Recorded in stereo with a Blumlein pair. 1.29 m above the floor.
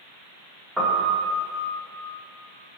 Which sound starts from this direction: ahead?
A piano, at 0.8 s.